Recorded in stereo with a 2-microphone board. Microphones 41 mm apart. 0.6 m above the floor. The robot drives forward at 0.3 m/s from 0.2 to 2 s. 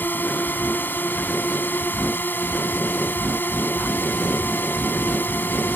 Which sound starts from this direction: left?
A drone, at 0.0 s.